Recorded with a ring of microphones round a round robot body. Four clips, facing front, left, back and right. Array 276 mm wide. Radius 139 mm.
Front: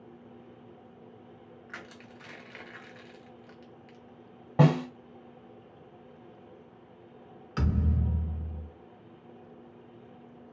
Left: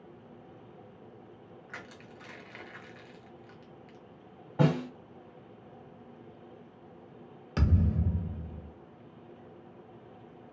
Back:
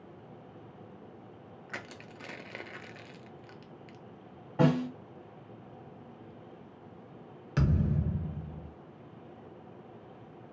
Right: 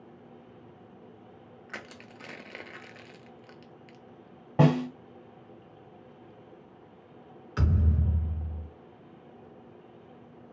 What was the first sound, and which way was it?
Crushing, 135° right.